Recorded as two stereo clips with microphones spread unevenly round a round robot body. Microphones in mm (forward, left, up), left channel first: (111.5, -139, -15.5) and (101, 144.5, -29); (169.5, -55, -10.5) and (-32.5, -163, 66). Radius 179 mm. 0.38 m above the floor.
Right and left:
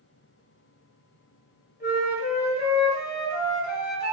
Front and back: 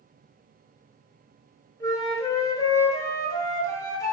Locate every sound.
1.8 s a flute: 35° right, 3 m